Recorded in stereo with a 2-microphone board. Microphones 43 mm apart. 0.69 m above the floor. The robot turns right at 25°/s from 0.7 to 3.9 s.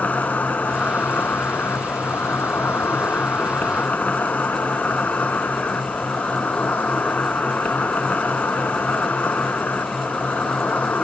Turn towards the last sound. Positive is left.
turn(degrees=130)